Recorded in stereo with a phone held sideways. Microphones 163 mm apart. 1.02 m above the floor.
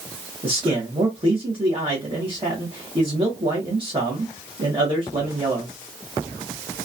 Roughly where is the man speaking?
Right.